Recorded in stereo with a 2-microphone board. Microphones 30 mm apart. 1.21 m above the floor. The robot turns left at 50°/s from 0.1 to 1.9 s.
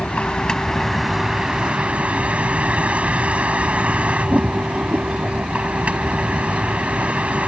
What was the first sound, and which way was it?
A vehicle, 45° left.